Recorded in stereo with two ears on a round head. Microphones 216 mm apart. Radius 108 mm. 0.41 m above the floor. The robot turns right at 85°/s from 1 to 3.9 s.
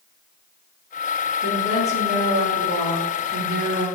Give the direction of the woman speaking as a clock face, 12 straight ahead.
8 o'clock.